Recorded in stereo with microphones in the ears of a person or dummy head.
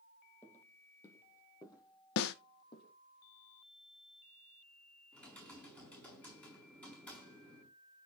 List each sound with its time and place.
0.4 s footsteps: 10° left (ahead or behind), 3 m; by 2.9 s 30° left (ahead or behind), 3.5 m
2.2 s a snare drum: 65° left (ahead or behind), 0.9 m
5.1 s typing on a keyboard: 5° left (ahead or behind), 5.5 m